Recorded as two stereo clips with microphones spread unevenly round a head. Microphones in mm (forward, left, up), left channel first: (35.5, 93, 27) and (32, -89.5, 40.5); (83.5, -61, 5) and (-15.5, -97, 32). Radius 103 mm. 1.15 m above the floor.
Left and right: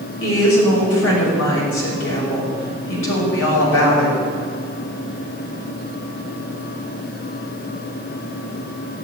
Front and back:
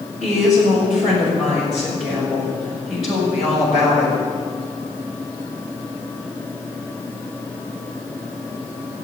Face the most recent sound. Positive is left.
turn(degrees=110)